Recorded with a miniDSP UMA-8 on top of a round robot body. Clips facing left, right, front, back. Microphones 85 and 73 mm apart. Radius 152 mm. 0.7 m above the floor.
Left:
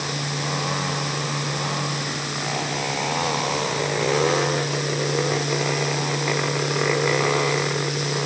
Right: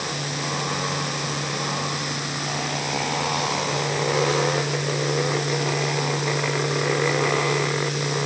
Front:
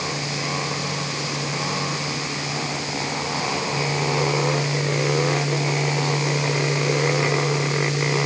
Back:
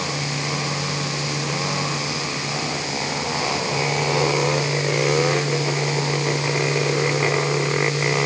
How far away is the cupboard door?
I don't hear a cupboard door.